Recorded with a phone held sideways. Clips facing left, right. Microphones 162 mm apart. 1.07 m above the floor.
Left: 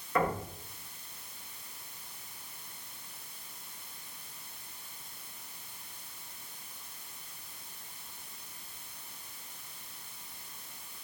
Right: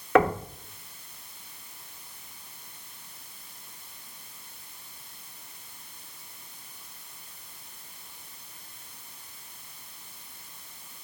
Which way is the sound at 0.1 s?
85° right.